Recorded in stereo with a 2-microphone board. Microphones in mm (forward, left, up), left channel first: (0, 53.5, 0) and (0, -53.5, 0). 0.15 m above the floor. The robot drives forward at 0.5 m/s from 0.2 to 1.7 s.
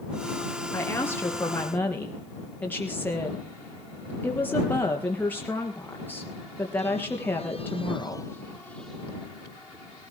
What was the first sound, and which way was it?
A woman speaking, 20° left (ahead or behind).